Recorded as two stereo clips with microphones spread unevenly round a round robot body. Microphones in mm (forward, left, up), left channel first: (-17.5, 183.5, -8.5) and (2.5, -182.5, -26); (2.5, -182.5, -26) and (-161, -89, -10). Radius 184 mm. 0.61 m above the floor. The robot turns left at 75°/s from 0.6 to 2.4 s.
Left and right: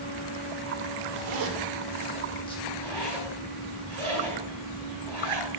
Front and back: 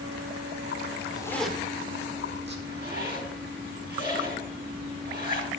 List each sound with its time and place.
1.2 s a zipper: 95° right, 1.5 m; by 2.5 s 170° left, 1.5 m
2.6 s a zipper: straight behind, 5 m